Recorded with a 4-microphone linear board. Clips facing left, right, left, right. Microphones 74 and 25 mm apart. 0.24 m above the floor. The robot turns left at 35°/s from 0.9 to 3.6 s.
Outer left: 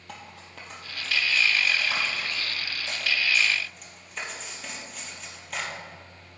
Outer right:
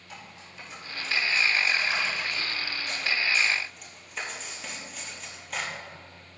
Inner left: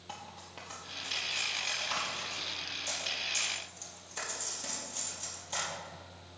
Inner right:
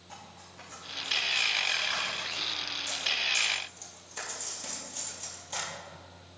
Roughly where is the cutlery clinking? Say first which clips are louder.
Outer left 3 dB, inner left 3 dB; left.